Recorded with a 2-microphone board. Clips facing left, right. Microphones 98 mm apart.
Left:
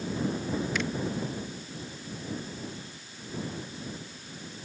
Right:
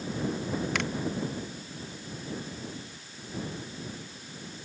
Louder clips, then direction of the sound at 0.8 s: Even; 65° right (ahead or behind).